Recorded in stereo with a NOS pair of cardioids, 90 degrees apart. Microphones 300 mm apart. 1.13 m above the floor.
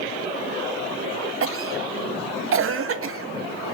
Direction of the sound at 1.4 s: 45° right.